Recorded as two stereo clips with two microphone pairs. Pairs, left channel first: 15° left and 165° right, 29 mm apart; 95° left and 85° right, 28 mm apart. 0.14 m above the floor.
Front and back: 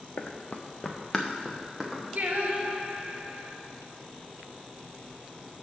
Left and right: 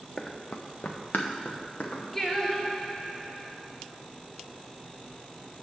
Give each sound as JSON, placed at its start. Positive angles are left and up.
{"t": 0.2, "sound": "running footsteps", "azimuth_deg": 35, "distance_m": 0.9}
{"t": 2.1, "sound": "singing", "azimuth_deg": 175, "distance_m": 1.1}